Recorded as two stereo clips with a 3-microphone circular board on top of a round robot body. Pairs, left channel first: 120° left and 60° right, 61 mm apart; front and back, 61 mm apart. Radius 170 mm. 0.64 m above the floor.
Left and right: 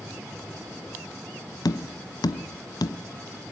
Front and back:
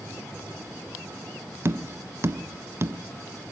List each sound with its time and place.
1.6 s tapping: 130° left, 1.0 m